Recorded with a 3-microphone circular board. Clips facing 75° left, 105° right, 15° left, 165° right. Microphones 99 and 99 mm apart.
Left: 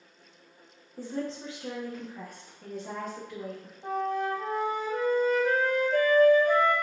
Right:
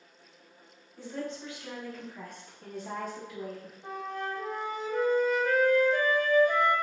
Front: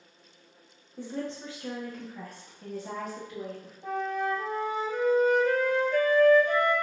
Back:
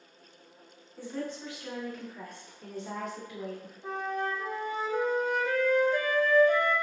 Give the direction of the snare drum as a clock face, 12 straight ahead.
I don't hear a snare drum.